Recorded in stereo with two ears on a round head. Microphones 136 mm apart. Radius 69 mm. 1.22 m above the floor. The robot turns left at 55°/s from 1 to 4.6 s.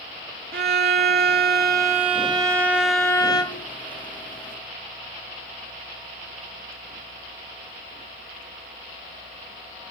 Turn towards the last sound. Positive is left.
turn(degrees=85)